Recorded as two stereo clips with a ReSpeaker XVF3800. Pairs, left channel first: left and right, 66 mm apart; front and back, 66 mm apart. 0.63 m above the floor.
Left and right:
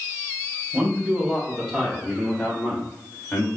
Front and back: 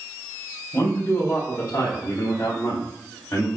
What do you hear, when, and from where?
0.7 s a man speaking: 40° right, 1.1 m; by 3.5 s 30° left, 1.7 m